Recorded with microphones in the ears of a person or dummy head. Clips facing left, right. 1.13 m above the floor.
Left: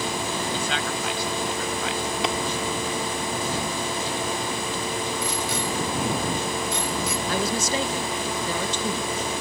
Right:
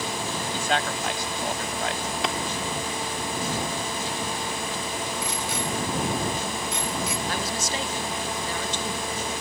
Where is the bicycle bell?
90° left.